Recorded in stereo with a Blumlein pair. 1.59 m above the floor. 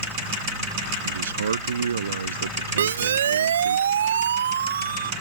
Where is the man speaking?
65° right; by 3.8 s 70° right.